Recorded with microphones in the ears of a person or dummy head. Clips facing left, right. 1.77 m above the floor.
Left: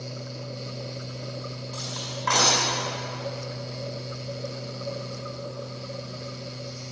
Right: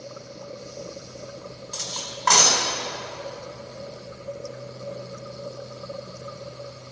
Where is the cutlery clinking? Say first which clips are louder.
Left 2 dB; 70° right (ahead or behind), 4 m.